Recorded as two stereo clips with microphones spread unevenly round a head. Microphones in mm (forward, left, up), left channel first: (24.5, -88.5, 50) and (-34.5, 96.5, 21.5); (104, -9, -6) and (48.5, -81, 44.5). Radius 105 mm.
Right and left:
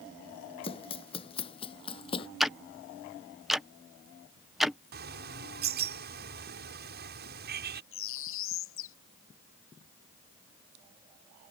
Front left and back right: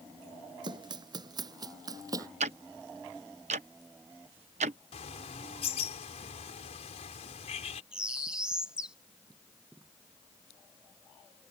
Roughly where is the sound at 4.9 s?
Ahead left.